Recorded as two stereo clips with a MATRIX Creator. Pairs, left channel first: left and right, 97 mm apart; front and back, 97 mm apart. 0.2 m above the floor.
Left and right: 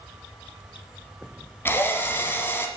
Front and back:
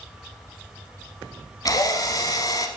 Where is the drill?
30° left, 0.8 m.